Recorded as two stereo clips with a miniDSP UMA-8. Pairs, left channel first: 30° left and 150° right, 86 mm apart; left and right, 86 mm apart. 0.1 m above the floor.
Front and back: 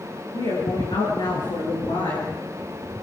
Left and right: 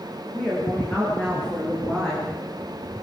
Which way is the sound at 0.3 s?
15° left.